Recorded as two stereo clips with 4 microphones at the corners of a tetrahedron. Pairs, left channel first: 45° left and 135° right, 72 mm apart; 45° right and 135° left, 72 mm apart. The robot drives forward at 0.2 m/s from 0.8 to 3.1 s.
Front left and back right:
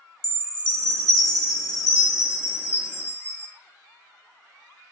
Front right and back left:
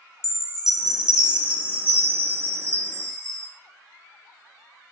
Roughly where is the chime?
Ahead left.